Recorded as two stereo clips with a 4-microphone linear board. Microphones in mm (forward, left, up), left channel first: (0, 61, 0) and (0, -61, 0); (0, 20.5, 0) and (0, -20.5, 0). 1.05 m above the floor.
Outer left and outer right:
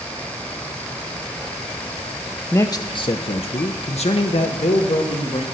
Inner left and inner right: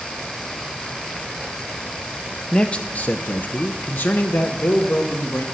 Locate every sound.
2.5 s a man speaking: 20° left (ahead or behind), 0.5 m; by 5.4 s 55° left (ahead or behind), 1.5 m